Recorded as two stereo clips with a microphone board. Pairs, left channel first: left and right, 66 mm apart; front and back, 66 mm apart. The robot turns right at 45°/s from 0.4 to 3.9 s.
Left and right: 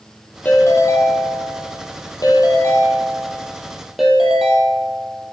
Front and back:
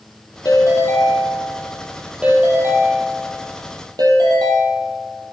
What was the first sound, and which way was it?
A ringtone, 25° left.